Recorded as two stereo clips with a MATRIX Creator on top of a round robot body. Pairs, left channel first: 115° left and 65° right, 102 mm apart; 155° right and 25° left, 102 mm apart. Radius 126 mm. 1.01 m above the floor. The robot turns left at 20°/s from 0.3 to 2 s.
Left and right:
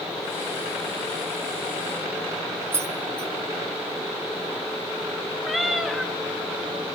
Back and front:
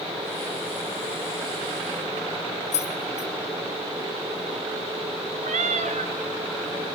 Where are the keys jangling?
135° right, 1.5 m.